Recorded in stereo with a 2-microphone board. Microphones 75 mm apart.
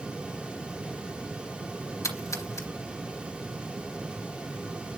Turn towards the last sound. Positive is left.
turn(degrees=45)  # may be behind; listen again after turning